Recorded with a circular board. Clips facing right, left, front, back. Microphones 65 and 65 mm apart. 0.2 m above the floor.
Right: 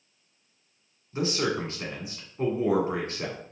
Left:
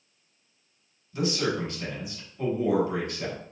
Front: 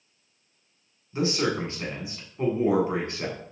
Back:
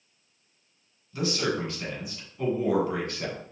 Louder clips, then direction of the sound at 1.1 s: Even, front 2 dB; 50° right.